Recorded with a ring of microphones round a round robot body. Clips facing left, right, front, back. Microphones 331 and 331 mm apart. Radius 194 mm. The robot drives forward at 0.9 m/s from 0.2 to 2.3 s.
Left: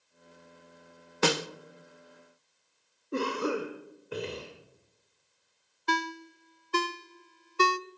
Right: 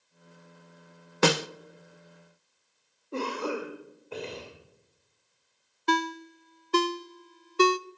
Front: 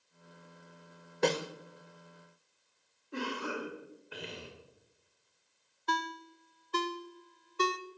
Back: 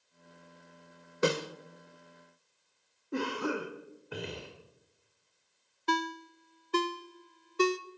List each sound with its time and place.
1.2 s a snare drum: 100° right, 0.7 m; by 1.5 s 115° right, 0.7 m
3.1 s a cough: 155° left, 1.8 m
5.9 s a ringtone: 130° right, 0.6 m